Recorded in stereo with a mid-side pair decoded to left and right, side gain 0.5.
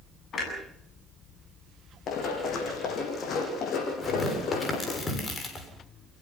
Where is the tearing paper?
35° left, 7 m.